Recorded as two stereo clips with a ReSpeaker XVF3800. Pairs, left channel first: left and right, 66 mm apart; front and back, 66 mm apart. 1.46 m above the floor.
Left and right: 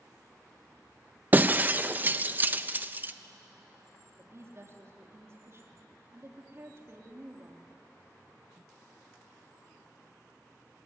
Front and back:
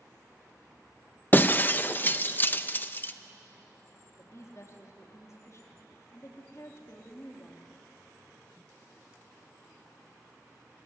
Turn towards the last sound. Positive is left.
turn(degrees=-45)